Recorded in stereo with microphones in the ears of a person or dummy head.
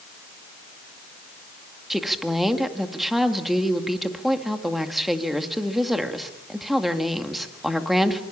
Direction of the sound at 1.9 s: Centre (ahead or behind).